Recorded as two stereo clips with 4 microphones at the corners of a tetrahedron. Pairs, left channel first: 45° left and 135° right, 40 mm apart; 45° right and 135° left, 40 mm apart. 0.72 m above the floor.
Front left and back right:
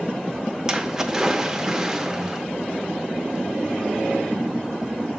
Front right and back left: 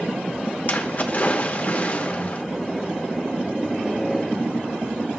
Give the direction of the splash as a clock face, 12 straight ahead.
2 o'clock.